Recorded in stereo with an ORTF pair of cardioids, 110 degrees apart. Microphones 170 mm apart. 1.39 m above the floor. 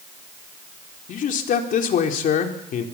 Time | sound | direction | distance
1.1 | a man speaking | 55° left | 3.5 m